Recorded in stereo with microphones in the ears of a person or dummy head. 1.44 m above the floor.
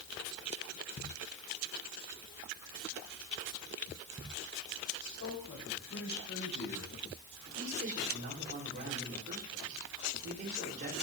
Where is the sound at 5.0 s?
70° left (ahead or behind), 7.5 m; by 6.9 s 80° left, 8.5 m.